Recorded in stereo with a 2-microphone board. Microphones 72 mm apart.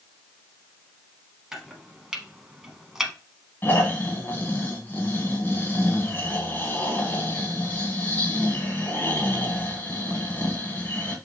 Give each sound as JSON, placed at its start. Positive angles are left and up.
{"t": 1.5, "sound": "chopping", "side_deg": -5, "distance_m": 0.9}
{"t": 3.6, "sound": "snoring", "side_deg": 30, "distance_m": 1.5}